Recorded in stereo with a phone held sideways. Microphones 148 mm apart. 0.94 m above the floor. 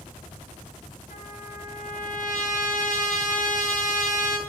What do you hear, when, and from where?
1.1 s a trumpet: 65° left (ahead or behind), 8 m